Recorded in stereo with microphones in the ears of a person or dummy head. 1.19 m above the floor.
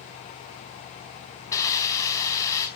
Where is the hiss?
15° left (ahead or behind), 4.5 m.